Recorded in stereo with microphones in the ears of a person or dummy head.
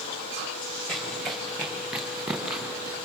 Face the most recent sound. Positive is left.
turn(degrees=0)  # may be behind; listen again after turning